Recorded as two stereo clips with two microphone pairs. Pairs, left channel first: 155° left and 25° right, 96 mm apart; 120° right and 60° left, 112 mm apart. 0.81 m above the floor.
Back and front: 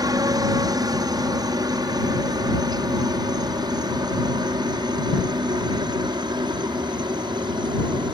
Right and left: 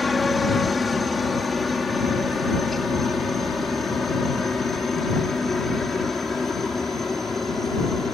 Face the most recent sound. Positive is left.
turn(degrees=-35)